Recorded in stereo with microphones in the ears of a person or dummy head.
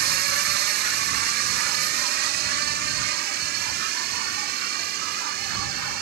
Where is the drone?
60° right (ahead or behind).